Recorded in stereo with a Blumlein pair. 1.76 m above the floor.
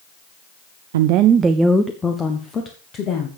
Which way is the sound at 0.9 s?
60° right.